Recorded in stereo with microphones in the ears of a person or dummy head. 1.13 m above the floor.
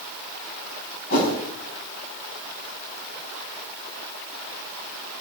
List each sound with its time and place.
1.1 s a whoosh: 55° left (ahead or behind), 4.5 m